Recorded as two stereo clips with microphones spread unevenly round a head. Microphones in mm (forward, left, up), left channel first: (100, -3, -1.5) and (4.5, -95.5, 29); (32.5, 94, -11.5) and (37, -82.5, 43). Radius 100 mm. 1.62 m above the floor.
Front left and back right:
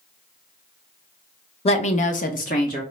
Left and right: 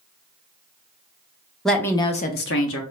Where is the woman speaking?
5° right, 0.8 m; by 2.8 s 100° left, 0.7 m.